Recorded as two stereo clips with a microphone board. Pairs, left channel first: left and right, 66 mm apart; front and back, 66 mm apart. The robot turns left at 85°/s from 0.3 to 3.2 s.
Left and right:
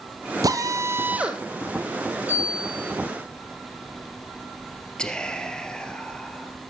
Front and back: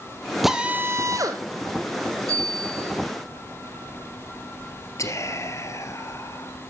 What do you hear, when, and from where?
0.4 s a drill: 90° right, 1.7 m; by 1.4 s 175° right, 1.7 m
2.3 s a bicycle bell: 155° right, 7 m; by 2.9 s 150° left, 7 m
5.0 s whispering: 15° left, 2.5 m